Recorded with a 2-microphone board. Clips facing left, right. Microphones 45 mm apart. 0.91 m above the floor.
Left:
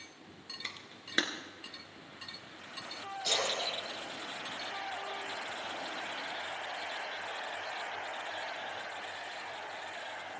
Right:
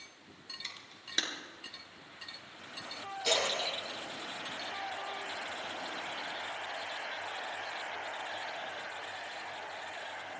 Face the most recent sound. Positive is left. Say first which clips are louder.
# right 2 dB
turn(degrees=-85)